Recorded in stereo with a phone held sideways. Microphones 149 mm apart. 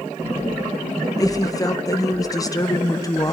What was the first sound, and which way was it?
A woman speaking, 25° left (ahead or behind).